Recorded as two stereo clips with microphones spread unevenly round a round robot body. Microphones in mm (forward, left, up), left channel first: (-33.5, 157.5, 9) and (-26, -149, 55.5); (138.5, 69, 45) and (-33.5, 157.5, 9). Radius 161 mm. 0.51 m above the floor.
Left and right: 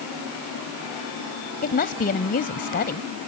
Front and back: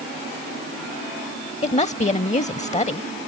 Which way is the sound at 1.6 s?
30° left.